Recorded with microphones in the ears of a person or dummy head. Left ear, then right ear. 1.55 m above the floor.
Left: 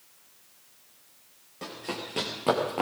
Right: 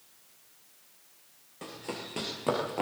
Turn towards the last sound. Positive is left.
turn(degrees=5)  # may be behind; listen again after turning